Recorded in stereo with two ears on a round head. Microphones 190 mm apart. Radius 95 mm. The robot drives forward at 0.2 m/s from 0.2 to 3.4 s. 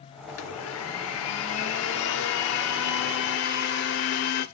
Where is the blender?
75° left (ahead or behind), 1.3 m; by 4.5 s 55° left (ahead or behind), 1.5 m.